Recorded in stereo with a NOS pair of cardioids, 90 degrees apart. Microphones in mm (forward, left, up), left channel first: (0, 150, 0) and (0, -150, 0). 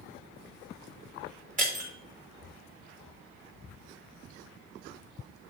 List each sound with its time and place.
1.6 s breaking glass: 25° right, 3.5 m